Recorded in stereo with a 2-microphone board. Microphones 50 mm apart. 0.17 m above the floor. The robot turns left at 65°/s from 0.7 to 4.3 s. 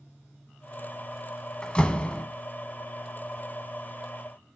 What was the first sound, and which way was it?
A door slam, 20° left (ahead or behind).